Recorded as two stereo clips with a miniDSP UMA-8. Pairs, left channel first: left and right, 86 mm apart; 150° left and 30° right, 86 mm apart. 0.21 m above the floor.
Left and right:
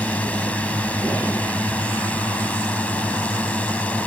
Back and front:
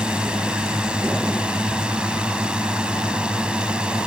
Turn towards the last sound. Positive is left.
turn(degrees=35)